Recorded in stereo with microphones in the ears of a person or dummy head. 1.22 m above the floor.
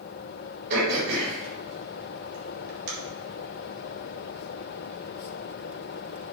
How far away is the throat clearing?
About 3.5 m.